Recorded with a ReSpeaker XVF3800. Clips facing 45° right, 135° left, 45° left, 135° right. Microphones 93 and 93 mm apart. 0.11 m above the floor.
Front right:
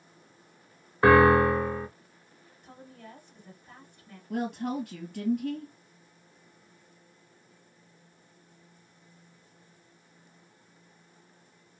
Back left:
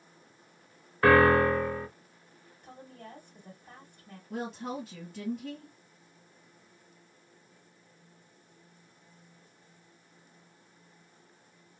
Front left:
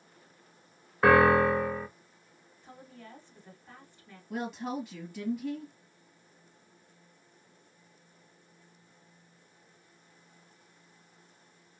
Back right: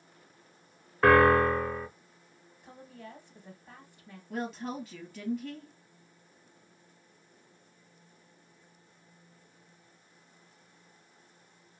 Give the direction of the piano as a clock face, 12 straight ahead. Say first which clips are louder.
Front right 2 dB, even; 1 o'clock.